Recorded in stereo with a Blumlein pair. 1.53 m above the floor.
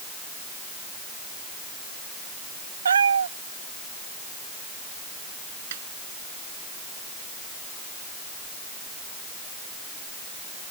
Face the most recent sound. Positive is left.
turn(degrees=-55)